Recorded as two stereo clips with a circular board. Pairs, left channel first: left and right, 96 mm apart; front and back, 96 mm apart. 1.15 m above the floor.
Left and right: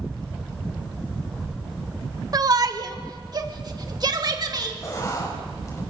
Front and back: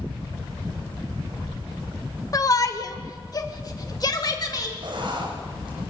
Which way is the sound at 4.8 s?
145° left.